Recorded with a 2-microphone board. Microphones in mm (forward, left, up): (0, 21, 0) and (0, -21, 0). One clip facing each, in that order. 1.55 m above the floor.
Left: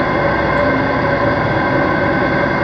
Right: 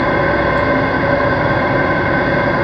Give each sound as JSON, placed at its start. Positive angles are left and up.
{"t": 0.0, "sound": "an engine running", "side_deg": -15, "distance_m": 1.0}